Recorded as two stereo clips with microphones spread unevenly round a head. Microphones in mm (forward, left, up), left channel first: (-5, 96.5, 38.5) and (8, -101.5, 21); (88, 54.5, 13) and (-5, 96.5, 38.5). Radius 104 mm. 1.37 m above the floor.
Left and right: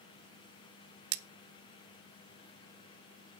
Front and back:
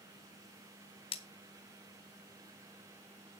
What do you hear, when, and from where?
1.1 s cutlery clinking: 70° right, 0.6 m